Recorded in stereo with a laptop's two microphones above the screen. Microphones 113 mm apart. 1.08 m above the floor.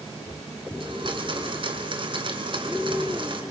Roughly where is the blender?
Right.